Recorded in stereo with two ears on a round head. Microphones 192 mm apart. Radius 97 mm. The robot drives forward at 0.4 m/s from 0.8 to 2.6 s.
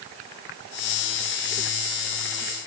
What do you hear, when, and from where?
Only background noise.